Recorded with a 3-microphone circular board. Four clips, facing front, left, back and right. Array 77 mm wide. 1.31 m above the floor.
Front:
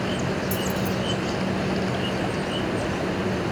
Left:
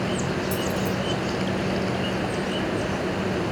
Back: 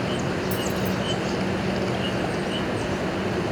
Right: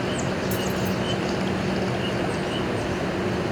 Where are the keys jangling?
80° right, 1.1 m.